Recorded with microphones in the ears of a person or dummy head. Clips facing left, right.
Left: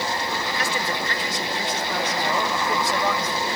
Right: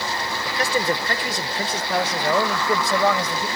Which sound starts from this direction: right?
A man speaking, at 0.5 s.